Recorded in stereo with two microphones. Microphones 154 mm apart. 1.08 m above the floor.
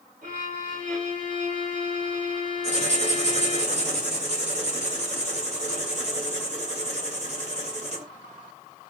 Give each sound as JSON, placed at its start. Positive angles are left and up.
{"t": 0.2, "sound": "a violin", "side_deg": -60, "distance_m": 1.5}
{"t": 2.6, "sound": "writing", "side_deg": -50, "distance_m": 1.8}